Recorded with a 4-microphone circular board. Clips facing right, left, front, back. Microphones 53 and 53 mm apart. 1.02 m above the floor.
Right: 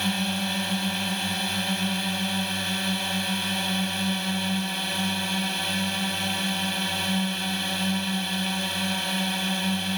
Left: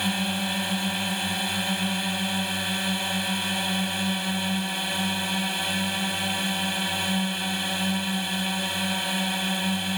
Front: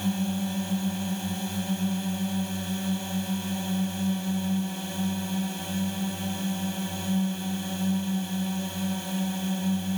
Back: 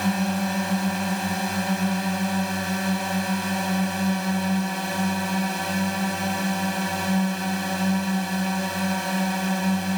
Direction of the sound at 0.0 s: 175° left.